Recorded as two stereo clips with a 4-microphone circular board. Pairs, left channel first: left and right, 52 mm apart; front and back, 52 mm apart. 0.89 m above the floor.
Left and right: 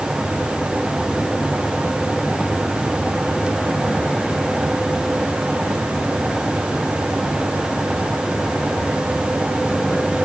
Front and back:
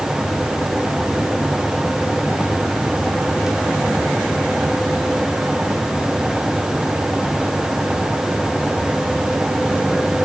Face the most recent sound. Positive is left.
No sound to turn to.